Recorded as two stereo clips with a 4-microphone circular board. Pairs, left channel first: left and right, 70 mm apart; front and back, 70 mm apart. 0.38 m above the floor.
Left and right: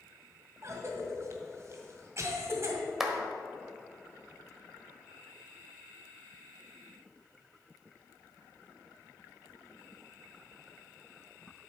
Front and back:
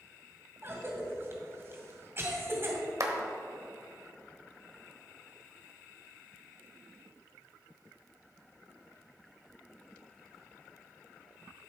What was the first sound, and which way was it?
A cough, 130° right.